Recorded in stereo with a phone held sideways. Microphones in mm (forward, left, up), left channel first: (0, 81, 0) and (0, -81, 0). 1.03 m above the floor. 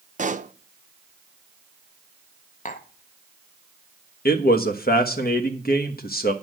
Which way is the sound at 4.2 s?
65° left (ahead or behind).